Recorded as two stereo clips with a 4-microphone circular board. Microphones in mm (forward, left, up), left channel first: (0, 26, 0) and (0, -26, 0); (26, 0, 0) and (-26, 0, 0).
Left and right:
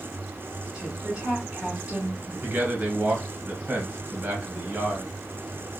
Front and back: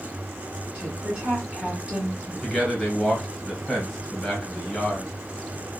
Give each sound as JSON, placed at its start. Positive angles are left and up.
{"t": 0.7, "sound": "a woman speaking", "azimuth_deg": -135, "distance_m": 1.3}
{"t": 2.4, "sound": "a man speaking", "azimuth_deg": -80, "distance_m": 1.1}